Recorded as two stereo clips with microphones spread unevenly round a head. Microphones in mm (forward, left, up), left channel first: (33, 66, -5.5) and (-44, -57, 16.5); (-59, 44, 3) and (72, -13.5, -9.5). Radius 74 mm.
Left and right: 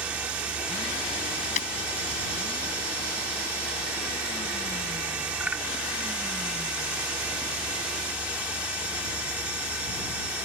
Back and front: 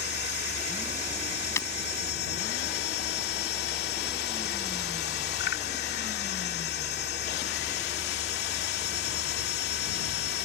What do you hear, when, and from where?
0.0 s a machine running: 160° left
1.6 s breaking glass: 95° left